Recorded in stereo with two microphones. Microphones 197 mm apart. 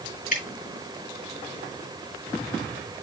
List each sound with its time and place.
0.3 s dripping: 40° left (ahead or behind), 5 m